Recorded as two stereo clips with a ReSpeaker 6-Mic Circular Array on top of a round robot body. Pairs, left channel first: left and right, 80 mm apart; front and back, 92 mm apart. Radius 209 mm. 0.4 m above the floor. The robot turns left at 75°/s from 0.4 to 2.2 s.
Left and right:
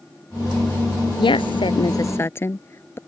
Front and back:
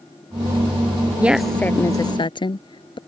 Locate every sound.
1.2 s a woman speaking: 105° left; by 3.0 s 30° left